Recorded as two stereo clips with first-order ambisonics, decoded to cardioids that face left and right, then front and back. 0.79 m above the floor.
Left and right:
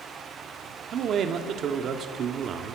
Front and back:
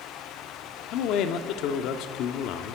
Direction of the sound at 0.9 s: 35° right.